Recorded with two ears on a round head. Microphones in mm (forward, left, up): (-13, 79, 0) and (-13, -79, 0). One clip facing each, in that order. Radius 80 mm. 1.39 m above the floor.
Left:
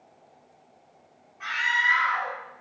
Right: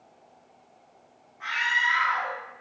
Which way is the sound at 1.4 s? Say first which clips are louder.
Even; 35° left (ahead or behind).